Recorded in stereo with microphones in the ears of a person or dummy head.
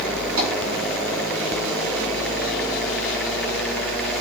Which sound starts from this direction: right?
Tapping, at 0.4 s.